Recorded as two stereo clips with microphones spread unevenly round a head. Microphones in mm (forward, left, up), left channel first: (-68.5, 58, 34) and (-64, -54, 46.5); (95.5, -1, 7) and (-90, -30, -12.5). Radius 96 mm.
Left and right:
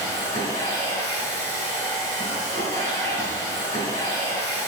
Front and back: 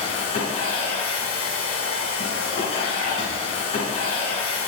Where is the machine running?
50° right, 4 m.